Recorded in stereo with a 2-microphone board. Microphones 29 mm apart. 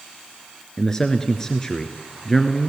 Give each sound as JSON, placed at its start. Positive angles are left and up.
{"t": 0.8, "sound": "a man speaking", "side_deg": 15, "distance_m": 1.5}